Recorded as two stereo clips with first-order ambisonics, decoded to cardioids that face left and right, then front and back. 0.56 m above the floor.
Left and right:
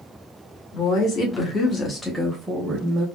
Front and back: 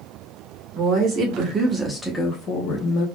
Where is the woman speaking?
140° left, 1.4 m; by 3.1 s 30° right, 1.2 m.